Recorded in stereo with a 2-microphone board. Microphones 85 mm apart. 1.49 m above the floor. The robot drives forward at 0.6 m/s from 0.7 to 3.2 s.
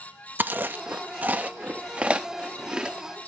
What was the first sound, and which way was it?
Chewing, 25° right (ahead or behind).